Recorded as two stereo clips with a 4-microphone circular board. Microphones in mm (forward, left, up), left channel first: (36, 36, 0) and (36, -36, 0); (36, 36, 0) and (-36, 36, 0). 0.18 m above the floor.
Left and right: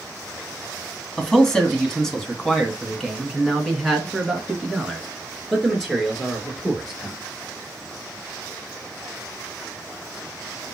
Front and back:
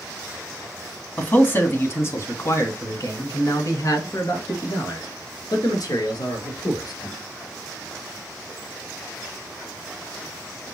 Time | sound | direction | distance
1.2 | a man speaking | 20° left | 1.7 m